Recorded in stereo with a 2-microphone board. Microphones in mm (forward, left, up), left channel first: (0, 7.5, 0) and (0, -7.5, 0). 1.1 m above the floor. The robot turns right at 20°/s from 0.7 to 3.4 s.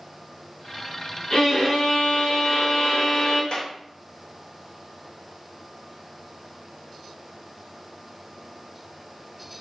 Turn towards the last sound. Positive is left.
turn(degrees=55)  # may be behind; listen again after turning